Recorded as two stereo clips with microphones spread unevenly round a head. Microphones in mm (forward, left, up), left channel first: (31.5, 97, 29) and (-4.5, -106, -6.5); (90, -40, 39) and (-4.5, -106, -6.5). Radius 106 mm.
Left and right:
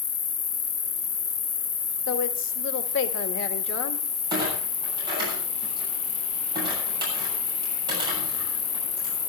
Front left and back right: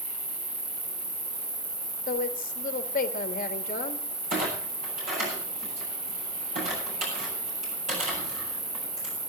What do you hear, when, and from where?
0.0 s an insect: 155° left, 0.7 m
2.1 s a woman speaking: 45° left, 1.8 m
4.3 s a clunk: 170° right, 9.5 m